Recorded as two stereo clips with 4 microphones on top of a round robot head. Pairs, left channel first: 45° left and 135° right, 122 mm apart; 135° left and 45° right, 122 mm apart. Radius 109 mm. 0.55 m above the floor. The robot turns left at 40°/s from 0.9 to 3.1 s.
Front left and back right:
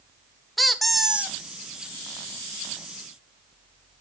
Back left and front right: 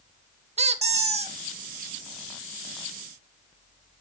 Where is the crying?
I don't hear crying.